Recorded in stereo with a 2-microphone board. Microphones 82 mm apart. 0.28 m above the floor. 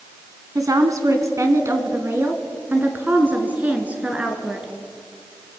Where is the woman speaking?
45° right (ahead or behind), 2.5 m; by 4.7 s 15° right (ahead or behind), 3.5 m.